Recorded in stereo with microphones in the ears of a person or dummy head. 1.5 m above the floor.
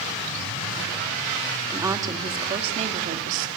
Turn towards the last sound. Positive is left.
turn(degrees=-45)  # may be behind; listen again after turning